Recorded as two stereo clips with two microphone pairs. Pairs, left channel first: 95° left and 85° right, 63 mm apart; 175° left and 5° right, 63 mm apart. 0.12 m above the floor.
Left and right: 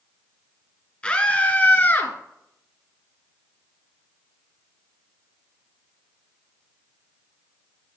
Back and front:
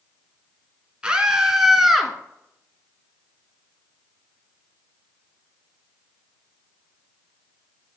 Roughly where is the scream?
Ahead left.